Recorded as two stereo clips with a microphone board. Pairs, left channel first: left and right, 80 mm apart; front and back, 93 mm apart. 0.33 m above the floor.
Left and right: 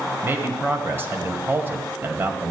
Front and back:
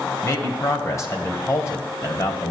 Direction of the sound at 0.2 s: 40° right.